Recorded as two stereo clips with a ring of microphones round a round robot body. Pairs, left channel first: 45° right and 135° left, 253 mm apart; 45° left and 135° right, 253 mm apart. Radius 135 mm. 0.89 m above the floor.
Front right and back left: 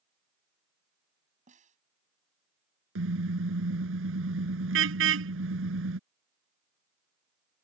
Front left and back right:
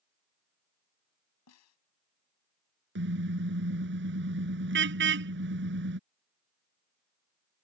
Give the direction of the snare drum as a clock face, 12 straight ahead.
10 o'clock.